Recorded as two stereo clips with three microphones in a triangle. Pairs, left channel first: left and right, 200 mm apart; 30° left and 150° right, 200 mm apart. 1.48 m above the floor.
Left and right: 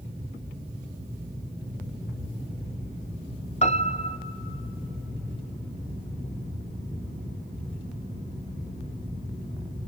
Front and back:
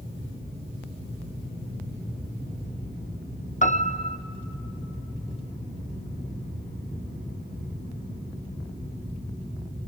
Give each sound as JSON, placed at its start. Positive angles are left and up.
{"t": 3.6, "sound": "a piano", "azimuth_deg": 55, "distance_m": 0.6}